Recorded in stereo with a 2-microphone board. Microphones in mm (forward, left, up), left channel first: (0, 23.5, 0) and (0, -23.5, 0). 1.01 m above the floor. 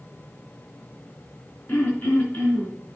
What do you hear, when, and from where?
1.7 s throat clearing: 40° left (ahead or behind), 3.5 m